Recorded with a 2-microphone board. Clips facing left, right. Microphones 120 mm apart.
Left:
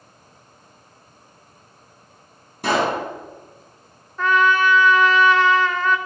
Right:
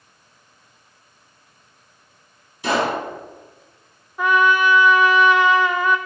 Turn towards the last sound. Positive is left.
turn(degrees=-10)  # may be behind; listen again after turning